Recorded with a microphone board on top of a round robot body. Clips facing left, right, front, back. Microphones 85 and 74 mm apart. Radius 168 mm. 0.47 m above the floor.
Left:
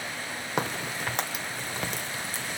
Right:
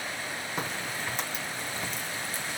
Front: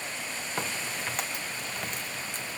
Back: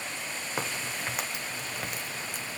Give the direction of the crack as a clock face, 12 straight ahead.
9 o'clock.